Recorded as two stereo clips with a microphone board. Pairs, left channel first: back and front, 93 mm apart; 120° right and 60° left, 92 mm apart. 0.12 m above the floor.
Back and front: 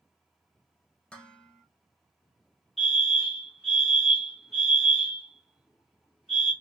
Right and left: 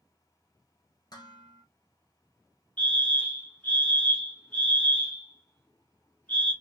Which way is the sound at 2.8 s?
90° right.